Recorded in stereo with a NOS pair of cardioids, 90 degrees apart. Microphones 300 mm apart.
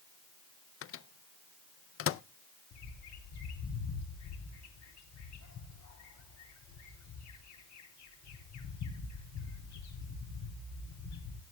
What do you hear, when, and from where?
0.8 s a microwave: 45° left, 0.5 m
2.7 s a bird: 65° left, 3 m